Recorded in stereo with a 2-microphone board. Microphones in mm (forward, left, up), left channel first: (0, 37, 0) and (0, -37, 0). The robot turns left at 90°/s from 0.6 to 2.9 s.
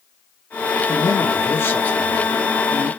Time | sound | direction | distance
0.9 | a man speaking | 120° left | 1.0 m